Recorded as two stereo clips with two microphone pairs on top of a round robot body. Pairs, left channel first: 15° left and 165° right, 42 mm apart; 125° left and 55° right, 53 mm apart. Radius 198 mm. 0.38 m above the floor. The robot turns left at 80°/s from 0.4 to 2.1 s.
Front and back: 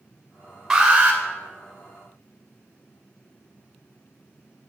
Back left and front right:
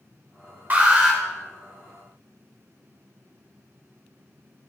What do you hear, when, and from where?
0.7 s an alarm: 95° right, 2.5 m; by 1.2 s 135° right, 2.5 m